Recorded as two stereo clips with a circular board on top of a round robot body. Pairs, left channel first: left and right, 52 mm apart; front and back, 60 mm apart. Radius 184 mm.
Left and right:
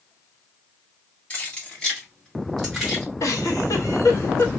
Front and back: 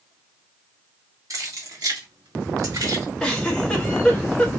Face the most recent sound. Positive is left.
turn(degrees=85)